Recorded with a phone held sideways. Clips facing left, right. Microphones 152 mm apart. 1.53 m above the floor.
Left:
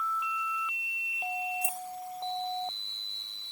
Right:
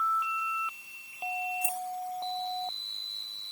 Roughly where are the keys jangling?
Left.